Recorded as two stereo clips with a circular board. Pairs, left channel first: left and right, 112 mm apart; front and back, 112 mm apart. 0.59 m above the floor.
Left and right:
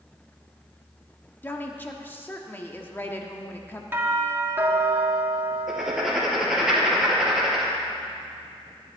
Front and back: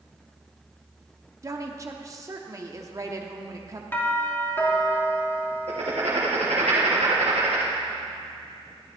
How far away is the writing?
About 3.5 m.